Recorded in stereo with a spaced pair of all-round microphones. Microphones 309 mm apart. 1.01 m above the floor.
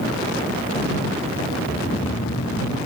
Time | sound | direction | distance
1.6 | snoring | 50° left (ahead or behind) | ?